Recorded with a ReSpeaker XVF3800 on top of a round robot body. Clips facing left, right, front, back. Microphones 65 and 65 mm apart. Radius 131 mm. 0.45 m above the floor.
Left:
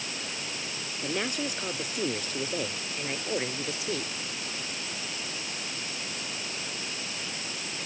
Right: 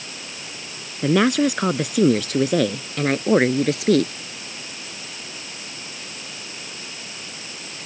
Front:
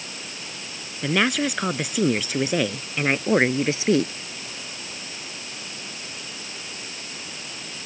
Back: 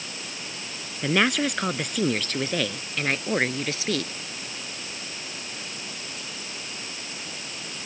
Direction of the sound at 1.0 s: 90° right.